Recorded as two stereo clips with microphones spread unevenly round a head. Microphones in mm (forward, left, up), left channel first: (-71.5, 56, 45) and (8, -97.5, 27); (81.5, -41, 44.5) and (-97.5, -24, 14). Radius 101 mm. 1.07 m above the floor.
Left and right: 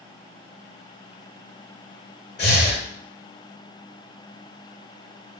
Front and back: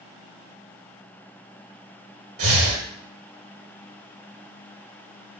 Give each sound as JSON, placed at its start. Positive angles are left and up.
{"t": 2.4, "sound": "breathing", "azimuth_deg": 160, "distance_m": 1.3}